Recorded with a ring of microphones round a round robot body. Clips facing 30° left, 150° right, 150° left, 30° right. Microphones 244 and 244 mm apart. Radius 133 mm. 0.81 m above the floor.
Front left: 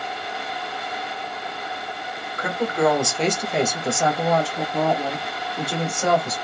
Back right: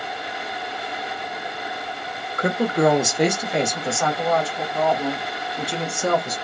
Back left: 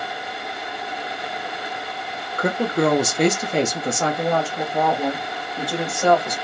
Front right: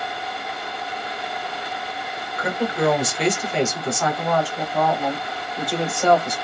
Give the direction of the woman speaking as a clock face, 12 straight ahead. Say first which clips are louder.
Back right 2 dB, back left 2 dB; 6 o'clock.